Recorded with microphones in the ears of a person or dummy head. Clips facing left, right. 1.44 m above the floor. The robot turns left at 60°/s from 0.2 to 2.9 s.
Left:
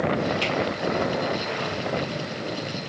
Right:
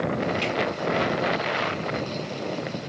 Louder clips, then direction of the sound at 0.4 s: Even; 10° left (ahead or behind).